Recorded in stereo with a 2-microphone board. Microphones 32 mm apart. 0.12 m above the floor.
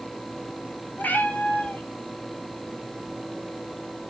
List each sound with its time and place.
1.0 s a cat meowing: 65° left (ahead or behind), 1.4 m